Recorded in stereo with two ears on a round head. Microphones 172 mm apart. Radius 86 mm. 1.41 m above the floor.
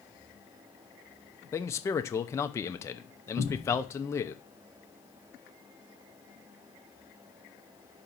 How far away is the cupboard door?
About 1.3 m.